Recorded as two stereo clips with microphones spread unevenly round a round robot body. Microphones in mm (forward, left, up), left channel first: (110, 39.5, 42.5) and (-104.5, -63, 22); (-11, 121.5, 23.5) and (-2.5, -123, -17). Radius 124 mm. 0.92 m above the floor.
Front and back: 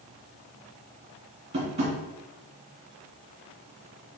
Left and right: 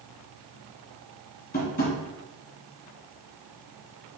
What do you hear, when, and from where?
1.5 s tapping: 140° left, 1.5 m